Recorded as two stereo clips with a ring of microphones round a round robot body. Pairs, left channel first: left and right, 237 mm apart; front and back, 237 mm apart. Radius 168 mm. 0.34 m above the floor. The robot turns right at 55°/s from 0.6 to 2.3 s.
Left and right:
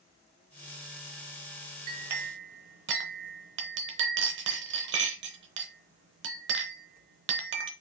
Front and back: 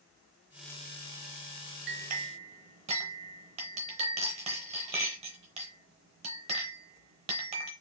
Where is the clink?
140° right, 0.6 m; by 7.7 s 120° right, 0.6 m.